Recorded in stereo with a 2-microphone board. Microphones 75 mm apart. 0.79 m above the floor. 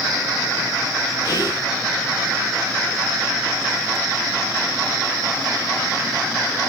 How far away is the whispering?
About 2.5 m.